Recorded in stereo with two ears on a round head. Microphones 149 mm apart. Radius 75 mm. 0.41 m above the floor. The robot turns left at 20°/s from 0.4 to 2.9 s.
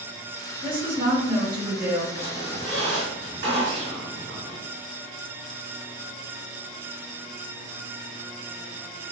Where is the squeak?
65° right (ahead or behind), 2.0 m; by 4.6 s 75° right (ahead or behind), 2.0 m.